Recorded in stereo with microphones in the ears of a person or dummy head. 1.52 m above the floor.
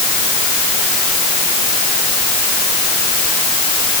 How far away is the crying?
No crying in this recording.